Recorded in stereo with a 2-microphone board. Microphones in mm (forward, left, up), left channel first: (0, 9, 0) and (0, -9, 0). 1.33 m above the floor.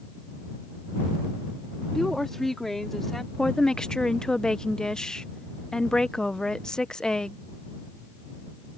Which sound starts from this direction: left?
A woman speaking, at 3.4 s.